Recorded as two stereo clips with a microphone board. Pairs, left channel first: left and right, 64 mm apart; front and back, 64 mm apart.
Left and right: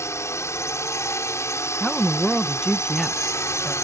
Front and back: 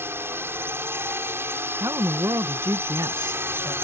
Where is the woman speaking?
175° left.